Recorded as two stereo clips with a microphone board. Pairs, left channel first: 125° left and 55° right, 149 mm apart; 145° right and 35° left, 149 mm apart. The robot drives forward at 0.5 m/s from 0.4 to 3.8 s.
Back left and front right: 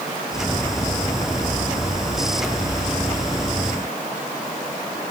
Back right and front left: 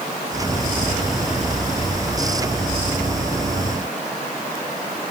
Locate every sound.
Only background noise.